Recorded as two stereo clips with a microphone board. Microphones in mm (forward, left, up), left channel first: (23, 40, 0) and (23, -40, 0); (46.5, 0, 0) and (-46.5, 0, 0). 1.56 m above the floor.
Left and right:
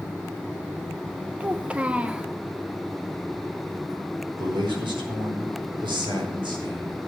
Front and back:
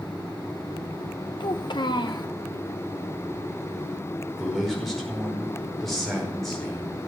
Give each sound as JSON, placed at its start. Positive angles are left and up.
{"t": 1.4, "sound": "a child speaking", "azimuth_deg": -15, "distance_m": 0.9}
{"t": 4.4, "sound": "a man speaking", "azimuth_deg": -85, "distance_m": 5.0}